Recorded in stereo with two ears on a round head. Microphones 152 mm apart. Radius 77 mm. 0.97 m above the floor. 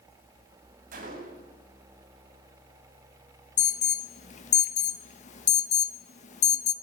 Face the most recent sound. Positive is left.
turn(degrees=45)  # may be behind; listen again after turning